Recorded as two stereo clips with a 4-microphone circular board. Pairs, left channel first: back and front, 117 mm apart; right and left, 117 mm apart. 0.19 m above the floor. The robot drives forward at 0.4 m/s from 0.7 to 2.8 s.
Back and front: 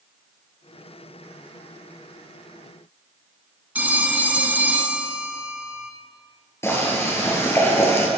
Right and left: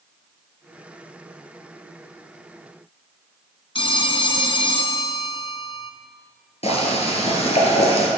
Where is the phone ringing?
70° right, 1.0 m.